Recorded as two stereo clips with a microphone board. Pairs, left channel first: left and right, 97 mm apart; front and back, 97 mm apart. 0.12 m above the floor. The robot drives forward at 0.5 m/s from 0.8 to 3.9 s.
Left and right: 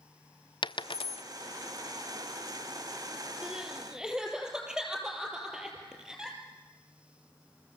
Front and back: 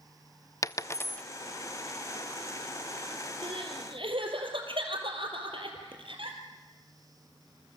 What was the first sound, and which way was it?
A dropped coin, 55° left.